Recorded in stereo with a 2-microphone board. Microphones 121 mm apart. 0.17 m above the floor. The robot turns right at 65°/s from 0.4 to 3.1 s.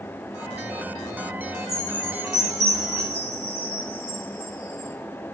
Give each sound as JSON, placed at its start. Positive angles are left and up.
{"t": 1.7, "sound": "a chime", "side_deg": 25, "distance_m": 3.5}